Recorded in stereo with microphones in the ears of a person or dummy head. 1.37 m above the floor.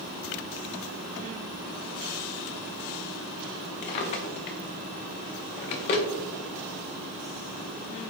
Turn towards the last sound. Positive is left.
turn(degrees=30)  # may be behind; listen again after turning